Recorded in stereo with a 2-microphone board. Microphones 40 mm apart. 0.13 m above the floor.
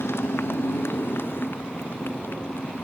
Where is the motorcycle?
70° left (ahead or behind); by 2.9 s 55° left (ahead or behind).